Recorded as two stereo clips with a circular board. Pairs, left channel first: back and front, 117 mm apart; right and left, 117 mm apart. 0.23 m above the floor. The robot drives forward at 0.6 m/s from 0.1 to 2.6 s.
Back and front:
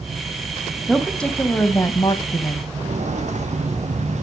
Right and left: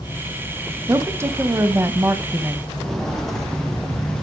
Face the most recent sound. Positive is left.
turn(degrees=-5)